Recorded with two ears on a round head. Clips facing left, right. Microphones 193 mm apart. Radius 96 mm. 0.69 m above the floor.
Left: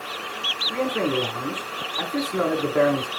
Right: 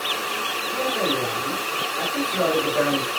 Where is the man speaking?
65° left (ahead or behind), 3 m.